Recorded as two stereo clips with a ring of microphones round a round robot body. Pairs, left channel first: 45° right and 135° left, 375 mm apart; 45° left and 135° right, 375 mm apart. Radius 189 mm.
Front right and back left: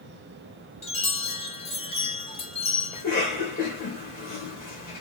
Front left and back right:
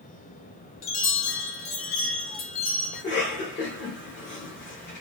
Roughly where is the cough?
Ahead.